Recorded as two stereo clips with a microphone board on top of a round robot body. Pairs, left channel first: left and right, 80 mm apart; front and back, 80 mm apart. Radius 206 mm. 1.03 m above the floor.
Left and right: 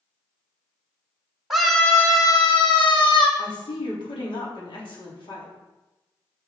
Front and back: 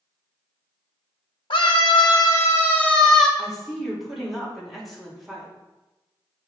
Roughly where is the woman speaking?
Left.